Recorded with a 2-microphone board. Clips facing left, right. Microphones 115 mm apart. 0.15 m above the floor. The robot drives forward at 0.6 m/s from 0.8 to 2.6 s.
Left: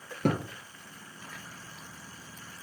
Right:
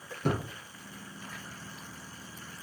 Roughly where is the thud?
Left.